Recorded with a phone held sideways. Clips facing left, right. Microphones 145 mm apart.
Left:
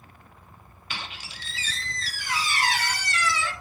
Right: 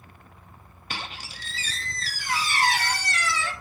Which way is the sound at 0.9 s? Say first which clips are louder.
Right 2 dB; 45° right (ahead or behind).